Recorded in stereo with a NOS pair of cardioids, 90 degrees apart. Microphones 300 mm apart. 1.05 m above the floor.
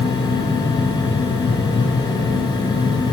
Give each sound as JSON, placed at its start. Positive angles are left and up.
{"t": 0.0, "sound": "a fan", "azimuth_deg": 15, "distance_m": 4.5}